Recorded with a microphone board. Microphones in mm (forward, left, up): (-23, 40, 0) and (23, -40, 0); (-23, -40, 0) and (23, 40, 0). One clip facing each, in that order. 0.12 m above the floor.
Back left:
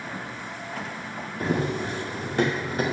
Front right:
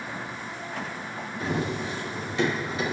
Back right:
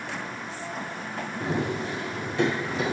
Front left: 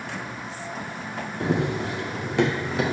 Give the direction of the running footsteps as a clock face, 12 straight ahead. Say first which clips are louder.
Back left 3 dB, front left 4 dB; 9 o'clock.